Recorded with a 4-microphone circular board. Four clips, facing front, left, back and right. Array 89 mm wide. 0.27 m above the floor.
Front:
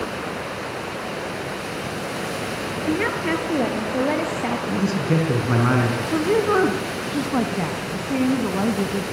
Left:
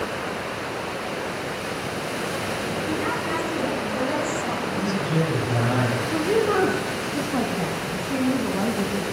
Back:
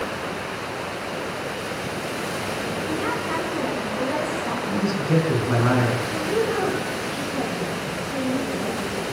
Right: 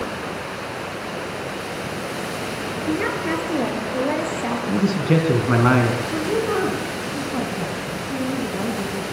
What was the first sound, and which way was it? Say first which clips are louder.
A woman speaking: right 5 dB, front 6 dB; 30° right.